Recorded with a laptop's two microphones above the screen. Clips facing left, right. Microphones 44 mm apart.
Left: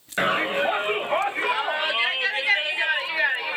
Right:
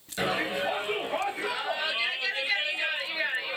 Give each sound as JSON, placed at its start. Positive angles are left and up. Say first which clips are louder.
{"t": 0.2, "sound": "a shout", "louder": "left 6 dB", "side_deg": 45, "distance_m": 6.0}